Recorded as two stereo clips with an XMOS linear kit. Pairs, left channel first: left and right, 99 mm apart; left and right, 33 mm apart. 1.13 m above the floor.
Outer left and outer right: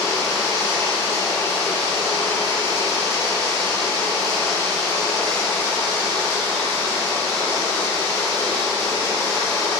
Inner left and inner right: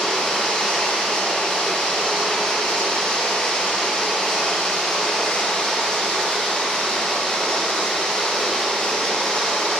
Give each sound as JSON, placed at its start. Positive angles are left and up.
{"t": 0.0, "sound": "running water", "side_deg": 30, "distance_m": 1.0}